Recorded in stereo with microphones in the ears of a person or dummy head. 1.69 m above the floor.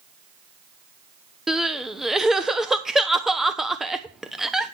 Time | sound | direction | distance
1.5 | crying | centre (ahead or behind) | 0.8 m